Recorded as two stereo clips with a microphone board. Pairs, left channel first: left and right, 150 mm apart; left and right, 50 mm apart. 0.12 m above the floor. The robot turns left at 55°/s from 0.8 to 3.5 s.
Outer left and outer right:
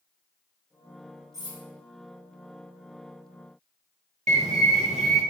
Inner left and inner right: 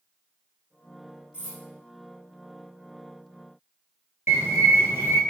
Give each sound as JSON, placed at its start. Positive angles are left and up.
{"t": 1.3, "sound": "cutlery clinking", "side_deg": -25, "distance_m": 1.5}
{"t": 4.3, "sound": "a bird", "side_deg": -55, "distance_m": 0.9}